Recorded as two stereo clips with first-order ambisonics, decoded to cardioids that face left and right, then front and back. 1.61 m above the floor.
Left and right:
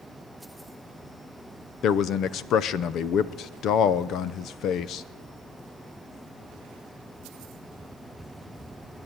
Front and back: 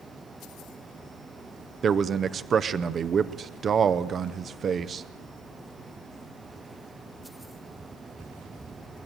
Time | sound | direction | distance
1.8 | a man speaking | 120° left | 0.5 m